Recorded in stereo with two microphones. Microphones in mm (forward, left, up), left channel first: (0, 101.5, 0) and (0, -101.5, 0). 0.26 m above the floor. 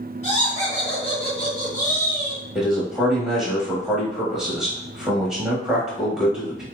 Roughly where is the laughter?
Left.